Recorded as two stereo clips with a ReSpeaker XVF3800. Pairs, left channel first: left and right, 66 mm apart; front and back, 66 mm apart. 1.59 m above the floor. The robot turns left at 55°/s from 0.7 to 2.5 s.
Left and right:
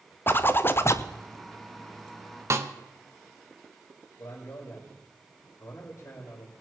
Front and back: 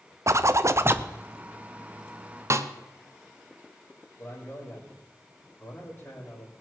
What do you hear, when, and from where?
0.3 s a zipper: 140° left, 0.6 m; by 1.1 s 120° left, 0.6 m
2.5 s a snare drum: 135° right, 0.8 m
4.2 s a man speaking: 55° left, 4.5 m